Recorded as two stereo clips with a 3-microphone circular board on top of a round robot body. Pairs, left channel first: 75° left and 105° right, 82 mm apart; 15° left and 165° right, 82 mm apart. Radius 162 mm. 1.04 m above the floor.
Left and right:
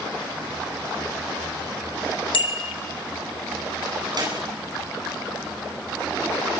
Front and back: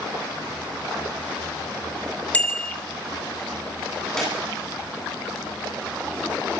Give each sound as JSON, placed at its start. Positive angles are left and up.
{"t": 2.3, "sound": "a bicycle bell", "azimuth_deg": 90, "distance_m": 2.5}
{"t": 4.2, "sound": "a clap", "azimuth_deg": -70, "distance_m": 9.5}